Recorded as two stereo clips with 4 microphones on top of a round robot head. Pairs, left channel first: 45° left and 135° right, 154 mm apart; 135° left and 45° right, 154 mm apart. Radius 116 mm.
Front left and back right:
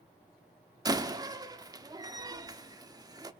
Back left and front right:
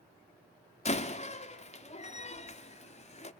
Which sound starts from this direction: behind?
A door slam, at 0.8 s.